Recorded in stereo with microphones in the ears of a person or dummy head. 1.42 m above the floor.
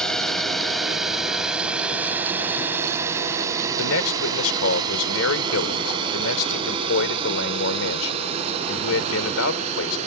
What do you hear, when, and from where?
0.0 s a drone: 5° left (ahead or behind); by 10.1 s 35° right (ahead or behind)
3.8 s a man speaking: 80° left